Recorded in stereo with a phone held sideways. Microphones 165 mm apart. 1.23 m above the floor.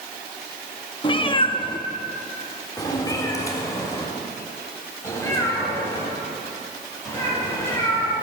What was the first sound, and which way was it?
A cat meowing, 30° left (ahead or behind).